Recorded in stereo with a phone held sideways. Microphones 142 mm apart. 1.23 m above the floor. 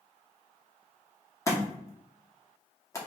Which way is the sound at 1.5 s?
20° left (ahead or behind).